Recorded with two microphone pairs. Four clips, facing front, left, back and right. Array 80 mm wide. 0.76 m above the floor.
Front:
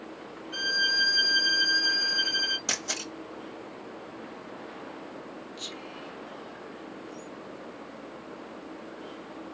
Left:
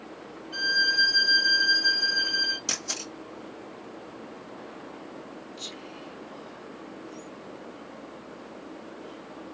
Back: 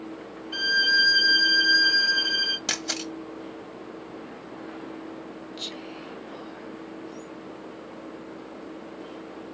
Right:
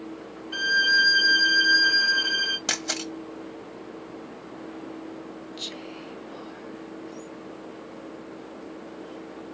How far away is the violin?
About 0.8 m.